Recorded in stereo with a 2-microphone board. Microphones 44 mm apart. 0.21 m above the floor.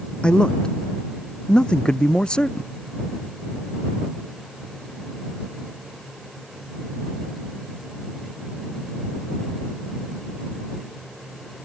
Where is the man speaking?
20° left (ahead or behind).